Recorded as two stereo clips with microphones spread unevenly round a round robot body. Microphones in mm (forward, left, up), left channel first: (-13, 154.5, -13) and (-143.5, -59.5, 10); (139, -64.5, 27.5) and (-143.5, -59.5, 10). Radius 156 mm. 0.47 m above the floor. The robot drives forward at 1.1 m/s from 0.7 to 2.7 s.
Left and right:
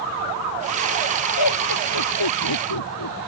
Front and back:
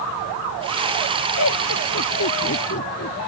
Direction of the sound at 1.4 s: 50° left.